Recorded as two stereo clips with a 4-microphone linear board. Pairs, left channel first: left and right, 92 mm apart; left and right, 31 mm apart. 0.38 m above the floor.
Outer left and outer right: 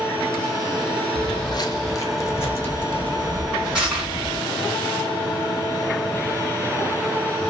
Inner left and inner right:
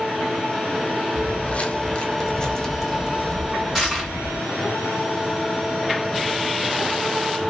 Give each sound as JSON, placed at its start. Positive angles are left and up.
{"t": 1.1, "sound": "footsteps", "side_deg": 60, "distance_m": 0.7}
{"t": 3.8, "sound": "crushing", "side_deg": -10, "distance_m": 2.5}